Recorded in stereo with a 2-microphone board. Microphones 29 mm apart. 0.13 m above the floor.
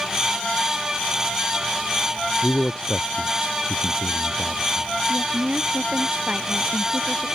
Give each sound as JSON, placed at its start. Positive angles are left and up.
{"t": 2.4, "sound": "a man speaking", "side_deg": 25}
{"t": 5.1, "sound": "a woman speaking", "side_deg": -45}